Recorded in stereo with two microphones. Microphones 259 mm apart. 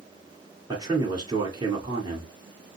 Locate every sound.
0.7 s a man speaking: 15° right (ahead or behind), 2.0 m